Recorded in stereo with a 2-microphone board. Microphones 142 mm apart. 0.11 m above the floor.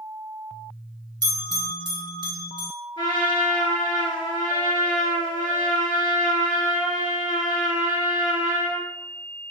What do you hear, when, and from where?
1.2 s a bell: 30° right (ahead or behind), 2.0 m
3.0 s a trumpet: 30° left (ahead or behind), 2.0 m